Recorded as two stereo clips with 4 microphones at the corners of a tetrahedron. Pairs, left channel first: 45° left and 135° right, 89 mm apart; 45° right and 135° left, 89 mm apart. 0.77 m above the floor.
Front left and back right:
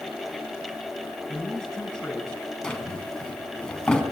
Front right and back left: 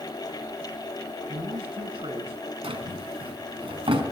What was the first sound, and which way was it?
A man speaking, 130° left.